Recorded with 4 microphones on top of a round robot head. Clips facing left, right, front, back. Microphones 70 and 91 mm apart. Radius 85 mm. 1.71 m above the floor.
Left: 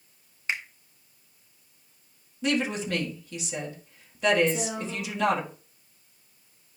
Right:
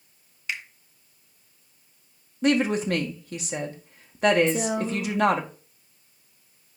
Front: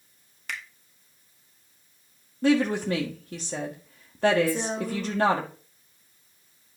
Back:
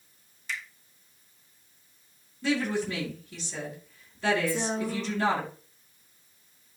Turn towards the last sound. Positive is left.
turn(degrees=-85)